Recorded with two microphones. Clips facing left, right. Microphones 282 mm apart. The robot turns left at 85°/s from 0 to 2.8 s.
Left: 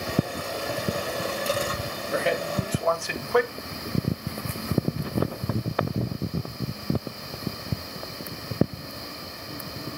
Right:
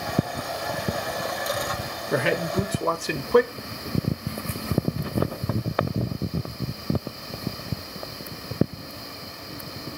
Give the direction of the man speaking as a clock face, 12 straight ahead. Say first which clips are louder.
Right 3 dB; 3 o'clock.